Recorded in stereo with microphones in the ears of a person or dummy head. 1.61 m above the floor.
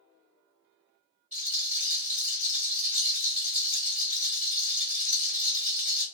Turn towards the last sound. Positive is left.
turn(degrees=-5)  # may be behind; listen again after turning